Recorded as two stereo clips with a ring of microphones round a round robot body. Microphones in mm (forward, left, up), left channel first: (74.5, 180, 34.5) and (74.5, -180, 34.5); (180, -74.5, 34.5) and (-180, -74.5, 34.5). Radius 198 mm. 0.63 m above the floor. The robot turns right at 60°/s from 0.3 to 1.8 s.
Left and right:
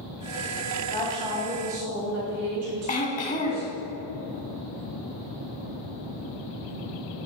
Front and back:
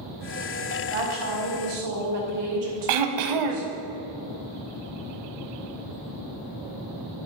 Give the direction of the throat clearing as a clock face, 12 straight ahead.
7 o'clock.